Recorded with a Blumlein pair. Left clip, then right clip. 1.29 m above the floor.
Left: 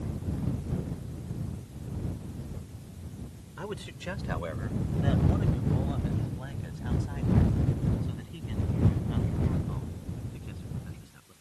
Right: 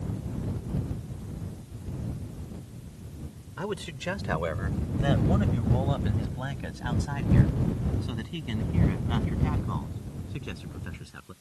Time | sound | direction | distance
3.6 | a man speaking | 15° right | ?